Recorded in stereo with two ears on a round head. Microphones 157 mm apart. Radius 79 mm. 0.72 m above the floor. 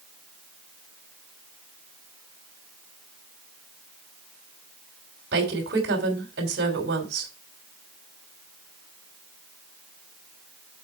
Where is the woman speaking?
60° right (ahead or behind), 3 m.